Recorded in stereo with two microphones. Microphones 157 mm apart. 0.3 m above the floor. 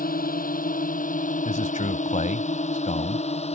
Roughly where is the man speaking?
Left.